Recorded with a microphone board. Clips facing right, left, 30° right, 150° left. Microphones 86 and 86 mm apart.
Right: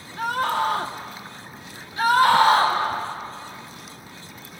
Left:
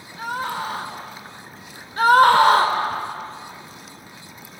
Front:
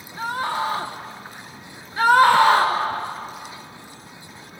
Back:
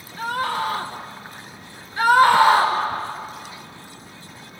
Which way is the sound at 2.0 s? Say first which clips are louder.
Left 3 dB, even; 40° left.